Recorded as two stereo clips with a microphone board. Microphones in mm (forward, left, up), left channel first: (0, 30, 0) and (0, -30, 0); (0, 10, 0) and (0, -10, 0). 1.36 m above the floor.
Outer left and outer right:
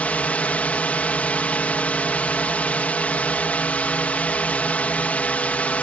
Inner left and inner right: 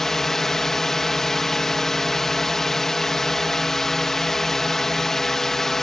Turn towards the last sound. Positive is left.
turn(degrees=25)  # may be behind; listen again after turning